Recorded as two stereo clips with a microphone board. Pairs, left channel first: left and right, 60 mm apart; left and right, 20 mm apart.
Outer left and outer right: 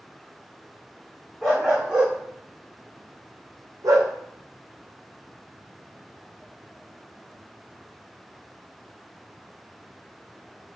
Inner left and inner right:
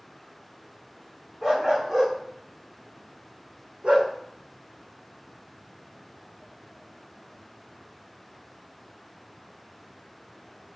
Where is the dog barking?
10° right (ahead or behind), 2.5 m; by 4.1 s 75° right (ahead or behind), 2.0 m.